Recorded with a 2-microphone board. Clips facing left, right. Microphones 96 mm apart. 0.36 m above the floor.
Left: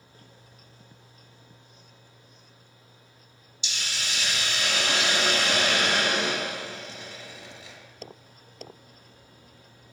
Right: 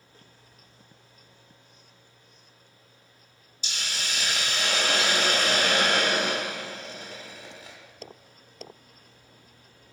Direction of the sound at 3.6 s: 40° right (ahead or behind).